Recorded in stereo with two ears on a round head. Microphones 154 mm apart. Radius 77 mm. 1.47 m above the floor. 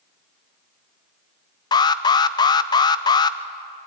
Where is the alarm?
25° left (ahead or behind), 0.8 m.